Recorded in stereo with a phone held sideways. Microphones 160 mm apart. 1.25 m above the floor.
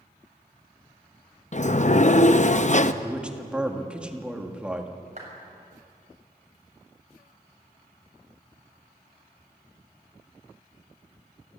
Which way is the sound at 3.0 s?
5° right (ahead or behind).